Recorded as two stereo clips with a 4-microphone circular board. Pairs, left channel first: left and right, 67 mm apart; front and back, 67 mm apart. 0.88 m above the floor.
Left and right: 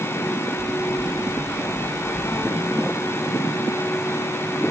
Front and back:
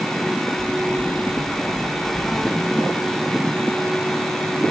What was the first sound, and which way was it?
Knocking, 90° left.